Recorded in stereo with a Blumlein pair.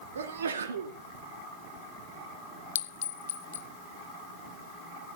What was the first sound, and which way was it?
A sneeze, 65° right.